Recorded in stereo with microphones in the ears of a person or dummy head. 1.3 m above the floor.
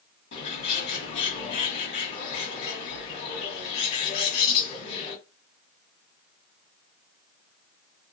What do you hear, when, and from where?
0.3 s a bird: 65° left (ahead or behind), 1.5 m